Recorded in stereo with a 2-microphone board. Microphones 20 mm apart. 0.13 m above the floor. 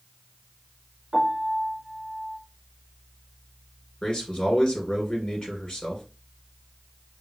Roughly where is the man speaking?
Left.